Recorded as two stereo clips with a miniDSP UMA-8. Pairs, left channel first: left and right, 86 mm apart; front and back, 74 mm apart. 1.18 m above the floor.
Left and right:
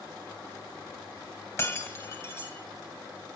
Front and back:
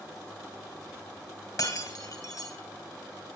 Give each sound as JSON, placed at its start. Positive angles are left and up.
{"t": 1.6, "sound": "breaking glass", "azimuth_deg": 35, "distance_m": 2.0}